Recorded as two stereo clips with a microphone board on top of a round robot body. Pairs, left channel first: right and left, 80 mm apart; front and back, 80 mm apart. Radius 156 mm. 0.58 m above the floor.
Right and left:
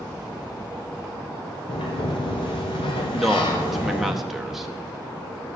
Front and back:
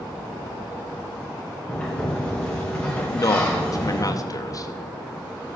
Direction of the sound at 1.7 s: 80° right.